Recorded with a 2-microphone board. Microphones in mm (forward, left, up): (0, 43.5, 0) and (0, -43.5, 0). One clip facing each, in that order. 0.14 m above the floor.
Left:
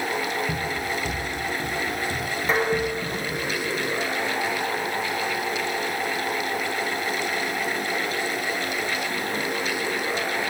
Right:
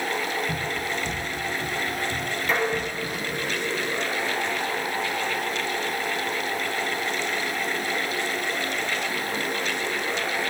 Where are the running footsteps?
25° left (ahead or behind), 8.5 m; by 3.5 s 35° left (ahead or behind), 7.5 m.